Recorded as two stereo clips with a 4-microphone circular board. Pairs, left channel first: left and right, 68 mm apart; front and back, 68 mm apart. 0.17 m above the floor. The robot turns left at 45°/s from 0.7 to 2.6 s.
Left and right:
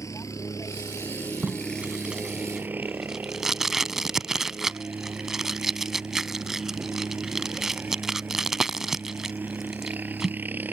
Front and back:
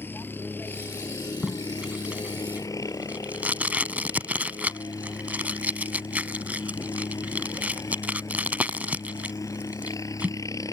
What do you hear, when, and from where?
0.0 s a helicopter: 55° left; by 10.7 s 30° right
1.4 s tape being pulled: 115° right; by 10.4 s 165° right